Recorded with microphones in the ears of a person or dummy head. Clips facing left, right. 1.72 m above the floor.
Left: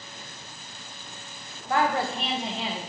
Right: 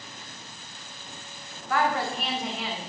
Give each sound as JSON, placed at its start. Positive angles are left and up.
{"t": 1.7, "sound": "a woman speaking", "side_deg": 25, "distance_m": 1.3}